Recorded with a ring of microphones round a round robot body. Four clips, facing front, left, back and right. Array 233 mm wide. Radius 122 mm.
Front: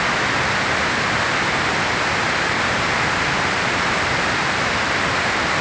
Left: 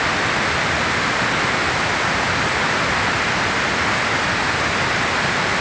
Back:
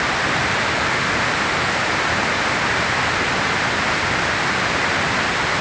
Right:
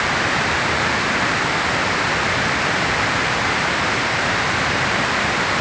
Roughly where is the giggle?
I don't hear a giggle.